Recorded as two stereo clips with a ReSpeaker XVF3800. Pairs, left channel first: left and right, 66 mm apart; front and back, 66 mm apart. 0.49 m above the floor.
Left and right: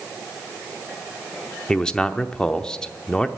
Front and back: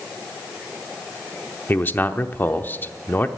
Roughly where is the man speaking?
Ahead.